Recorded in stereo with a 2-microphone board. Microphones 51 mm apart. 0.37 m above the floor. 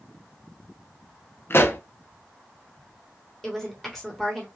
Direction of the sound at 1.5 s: 50° left (ahead or behind).